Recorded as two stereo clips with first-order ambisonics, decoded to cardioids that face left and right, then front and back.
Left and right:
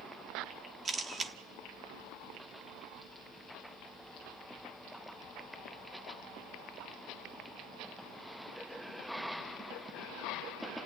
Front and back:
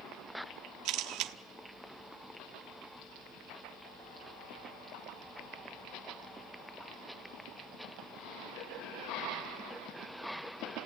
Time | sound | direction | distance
0.8 | a camera shutter | 155° right | 1.3 m